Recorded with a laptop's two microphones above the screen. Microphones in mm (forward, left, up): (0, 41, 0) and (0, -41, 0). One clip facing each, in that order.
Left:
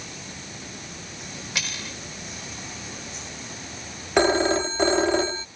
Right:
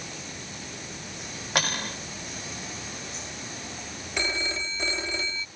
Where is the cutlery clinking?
55° right (ahead or behind).